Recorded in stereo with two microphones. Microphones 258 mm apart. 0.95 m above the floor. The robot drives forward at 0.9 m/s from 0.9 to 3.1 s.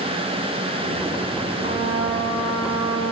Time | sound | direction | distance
1.6 | a trumpet | 40° right (ahead or behind) | 2.5 m